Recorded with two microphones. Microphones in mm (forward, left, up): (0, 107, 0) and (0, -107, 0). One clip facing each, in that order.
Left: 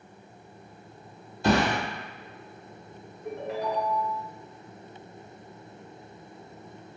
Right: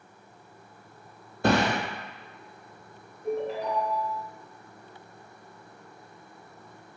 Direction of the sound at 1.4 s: 60° right (ahead or behind).